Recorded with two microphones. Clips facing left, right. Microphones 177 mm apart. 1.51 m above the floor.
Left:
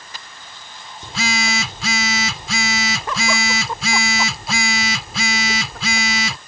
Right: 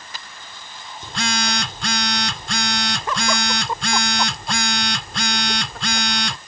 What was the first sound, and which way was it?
A phone buzzing, 5° left (ahead or behind).